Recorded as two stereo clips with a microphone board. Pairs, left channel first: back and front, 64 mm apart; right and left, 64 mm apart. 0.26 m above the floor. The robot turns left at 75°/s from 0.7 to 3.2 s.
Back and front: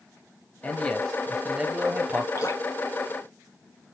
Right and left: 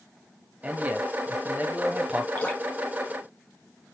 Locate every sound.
0.6 s a man speaking: 130° left, 1.0 m; by 2.2 s 15° left, 1.0 m
2.4 s dripping: 145° right, 1.4 m; by 2.6 s 165° right, 1.4 m